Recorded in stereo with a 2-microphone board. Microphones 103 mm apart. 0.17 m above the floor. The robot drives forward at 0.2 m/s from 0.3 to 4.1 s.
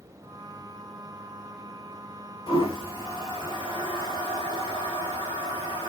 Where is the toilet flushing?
50° left (ahead or behind), 1.4 m; by 5.9 s 45° left (ahead or behind), 1.6 m.